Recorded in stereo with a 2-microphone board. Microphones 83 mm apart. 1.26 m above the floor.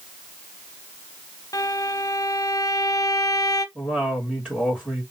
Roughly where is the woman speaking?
Centre.